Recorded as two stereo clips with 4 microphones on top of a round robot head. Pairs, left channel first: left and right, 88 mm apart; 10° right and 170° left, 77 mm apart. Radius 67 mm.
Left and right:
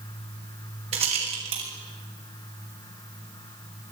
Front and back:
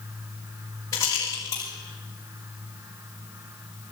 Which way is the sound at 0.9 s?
75° right.